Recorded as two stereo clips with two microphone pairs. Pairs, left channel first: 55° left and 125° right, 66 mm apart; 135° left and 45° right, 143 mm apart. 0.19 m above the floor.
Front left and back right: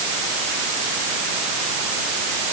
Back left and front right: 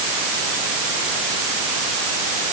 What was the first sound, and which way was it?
Only background noise.